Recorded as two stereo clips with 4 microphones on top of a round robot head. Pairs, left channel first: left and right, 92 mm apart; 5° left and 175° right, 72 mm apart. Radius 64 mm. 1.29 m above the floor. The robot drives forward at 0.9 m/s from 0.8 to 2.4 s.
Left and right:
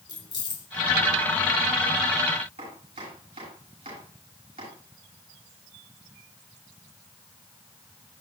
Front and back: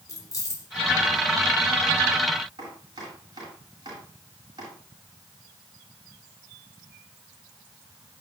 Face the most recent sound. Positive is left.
turn(degrees=-120)